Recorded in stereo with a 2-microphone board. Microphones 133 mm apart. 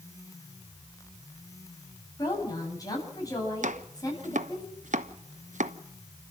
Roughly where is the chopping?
Right.